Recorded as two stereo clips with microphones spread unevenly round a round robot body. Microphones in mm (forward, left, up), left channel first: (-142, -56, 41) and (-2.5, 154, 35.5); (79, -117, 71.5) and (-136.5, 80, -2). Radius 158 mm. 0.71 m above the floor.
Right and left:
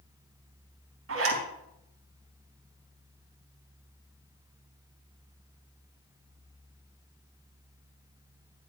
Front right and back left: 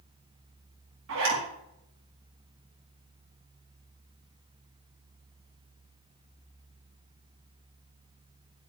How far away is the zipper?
About 4 m.